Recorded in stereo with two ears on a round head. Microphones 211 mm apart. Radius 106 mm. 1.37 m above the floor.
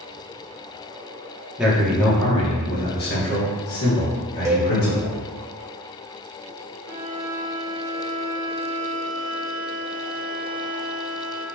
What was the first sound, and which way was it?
A man speaking, 5° right (ahead or behind).